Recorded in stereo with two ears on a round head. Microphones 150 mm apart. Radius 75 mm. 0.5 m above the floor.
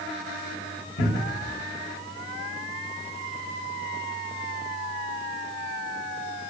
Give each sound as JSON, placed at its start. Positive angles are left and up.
{"t": 1.0, "sound": "a cupboard door", "side_deg": 80, "distance_m": 4.5}